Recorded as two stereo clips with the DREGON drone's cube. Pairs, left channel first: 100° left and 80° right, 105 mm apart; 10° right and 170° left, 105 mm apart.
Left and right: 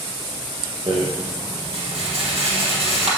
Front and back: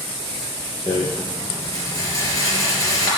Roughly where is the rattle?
Ahead right.